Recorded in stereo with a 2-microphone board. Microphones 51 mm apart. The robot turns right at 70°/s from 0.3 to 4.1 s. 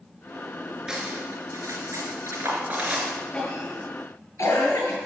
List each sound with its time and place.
0.9 s cutlery clinking: 10° right (ahead or behind), 3 m
3.3 s a cough: 20° left (ahead or behind), 4.5 m; by 5.0 s 70° left (ahead or behind), 4.5 m